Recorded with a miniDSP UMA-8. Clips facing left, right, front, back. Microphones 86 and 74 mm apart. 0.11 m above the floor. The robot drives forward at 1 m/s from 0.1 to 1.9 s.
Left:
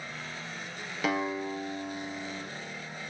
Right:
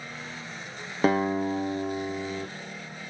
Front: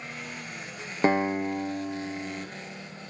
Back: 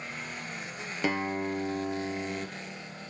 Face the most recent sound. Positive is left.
turn(degrees=-130)